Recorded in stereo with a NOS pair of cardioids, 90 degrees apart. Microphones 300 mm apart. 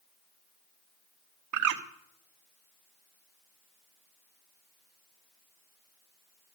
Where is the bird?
70° right, 1.3 m.